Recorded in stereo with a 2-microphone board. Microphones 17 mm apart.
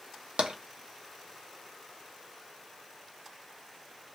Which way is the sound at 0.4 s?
75° right (ahead or behind).